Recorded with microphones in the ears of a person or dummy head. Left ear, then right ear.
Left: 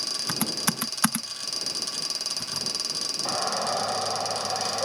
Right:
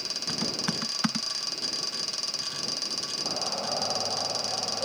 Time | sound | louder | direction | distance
0.3 | typing on a keyboard | left 2 dB | 40° left (ahead or behind) | ?
3.2 | a shout | left 5 dB | 70° left (ahead or behind) | ?